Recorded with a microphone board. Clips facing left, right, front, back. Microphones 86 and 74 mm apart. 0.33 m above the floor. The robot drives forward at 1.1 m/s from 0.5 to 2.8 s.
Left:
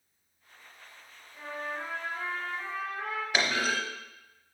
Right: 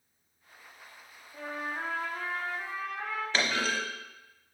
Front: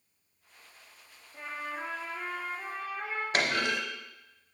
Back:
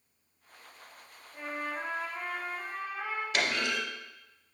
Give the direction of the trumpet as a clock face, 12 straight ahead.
3 o'clock.